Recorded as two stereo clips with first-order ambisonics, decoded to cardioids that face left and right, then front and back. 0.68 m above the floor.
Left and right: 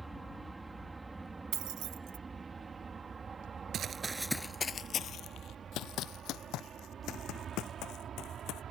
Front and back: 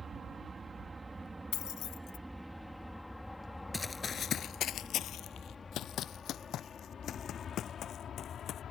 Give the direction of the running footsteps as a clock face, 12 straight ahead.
2 o'clock.